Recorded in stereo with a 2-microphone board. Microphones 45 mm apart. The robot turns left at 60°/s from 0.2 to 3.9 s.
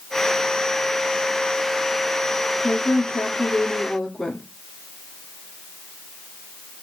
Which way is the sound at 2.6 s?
85° left.